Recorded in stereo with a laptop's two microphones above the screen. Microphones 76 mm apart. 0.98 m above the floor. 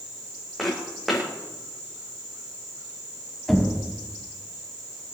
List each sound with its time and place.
0.6 s footsteps: centre (ahead or behind), 4 m
3.5 s knocking: centre (ahead or behind), 5 m